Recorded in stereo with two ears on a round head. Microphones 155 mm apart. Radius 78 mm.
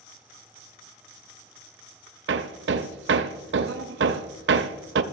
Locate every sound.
2.3 s hammering: 70° right (ahead or behind), 0.5 m